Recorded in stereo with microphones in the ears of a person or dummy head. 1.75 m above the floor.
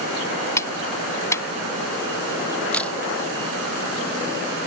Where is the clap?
15° left (ahead or behind).